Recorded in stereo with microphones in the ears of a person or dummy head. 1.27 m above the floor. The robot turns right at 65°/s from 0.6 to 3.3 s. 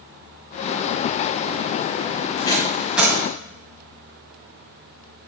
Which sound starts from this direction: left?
Tape being pulled, at 2.4 s.